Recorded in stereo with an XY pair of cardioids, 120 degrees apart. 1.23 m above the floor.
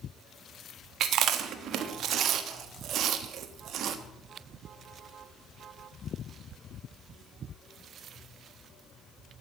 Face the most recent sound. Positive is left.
turn(degrees=-65)